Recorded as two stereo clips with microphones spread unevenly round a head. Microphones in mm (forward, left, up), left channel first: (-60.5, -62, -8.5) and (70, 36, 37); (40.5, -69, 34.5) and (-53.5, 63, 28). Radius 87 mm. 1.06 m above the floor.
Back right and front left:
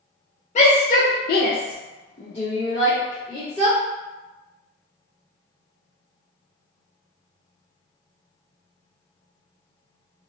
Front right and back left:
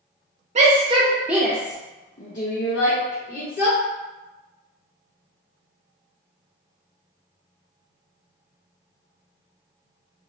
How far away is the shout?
About 0.7 m.